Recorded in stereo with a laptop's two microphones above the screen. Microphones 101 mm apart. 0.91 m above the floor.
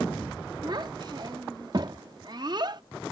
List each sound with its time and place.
0.6 s a child speaking: 45° right (ahead or behind)